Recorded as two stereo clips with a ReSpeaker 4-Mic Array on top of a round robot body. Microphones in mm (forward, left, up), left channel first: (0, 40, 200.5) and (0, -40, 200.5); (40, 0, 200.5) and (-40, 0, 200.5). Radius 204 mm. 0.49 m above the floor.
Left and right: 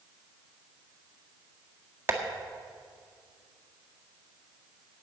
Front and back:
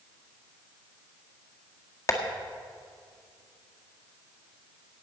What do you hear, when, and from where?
2.1 s tapping: 35° right, 1.9 m